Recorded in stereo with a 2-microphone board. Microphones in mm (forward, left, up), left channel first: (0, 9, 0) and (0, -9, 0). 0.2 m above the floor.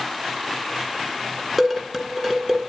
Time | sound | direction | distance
1.6 | dishes clattering | 20° right (ahead or behind) | 1.8 m